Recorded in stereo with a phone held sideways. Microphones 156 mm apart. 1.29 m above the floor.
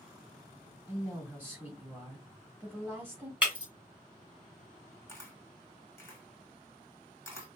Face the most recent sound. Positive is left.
turn(degrees=15)  # may be behind; listen again after turning